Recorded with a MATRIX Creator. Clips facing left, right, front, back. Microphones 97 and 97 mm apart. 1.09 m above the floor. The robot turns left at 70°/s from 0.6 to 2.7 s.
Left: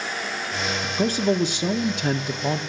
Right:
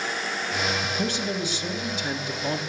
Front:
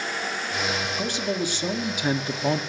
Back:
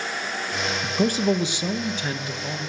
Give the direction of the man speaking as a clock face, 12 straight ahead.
7 o'clock.